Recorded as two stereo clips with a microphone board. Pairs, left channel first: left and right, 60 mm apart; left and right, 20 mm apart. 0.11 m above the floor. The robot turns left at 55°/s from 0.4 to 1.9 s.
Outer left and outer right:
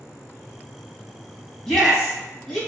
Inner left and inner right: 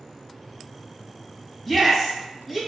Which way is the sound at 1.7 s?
15° left (ahead or behind).